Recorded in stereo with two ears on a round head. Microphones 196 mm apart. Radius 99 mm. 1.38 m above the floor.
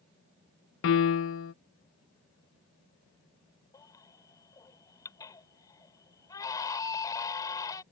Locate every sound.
0.8 s a piano: 65° left (ahead or behind)
3.7 s a baby crying: 15° left (ahead or behind)